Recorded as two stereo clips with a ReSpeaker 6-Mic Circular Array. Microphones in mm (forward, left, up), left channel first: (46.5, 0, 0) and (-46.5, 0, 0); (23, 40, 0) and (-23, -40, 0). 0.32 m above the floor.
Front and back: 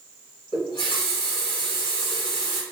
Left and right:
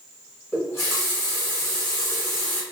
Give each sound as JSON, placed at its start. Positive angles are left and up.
{"t": 0.5, "sound": "a running tap", "azimuth_deg": -5, "distance_m": 1.5}